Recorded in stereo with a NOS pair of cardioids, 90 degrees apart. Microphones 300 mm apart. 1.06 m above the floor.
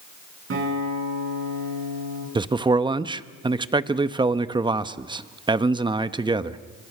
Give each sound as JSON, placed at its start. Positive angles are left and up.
{"t": 0.5, "sound": "a guitar", "azimuth_deg": -45, "distance_m": 9.5}
{"t": 2.4, "sound": "a man speaking", "azimuth_deg": -15, "distance_m": 1.0}